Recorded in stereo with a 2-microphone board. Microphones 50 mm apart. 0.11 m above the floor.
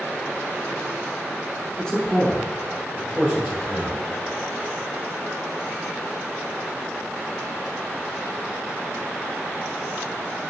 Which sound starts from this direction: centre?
A man speaking, at 1.8 s.